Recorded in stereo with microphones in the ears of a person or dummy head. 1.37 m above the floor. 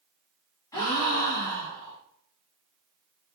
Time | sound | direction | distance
0.7 | a gasp | 15° left (ahead or behind) | 0.7 m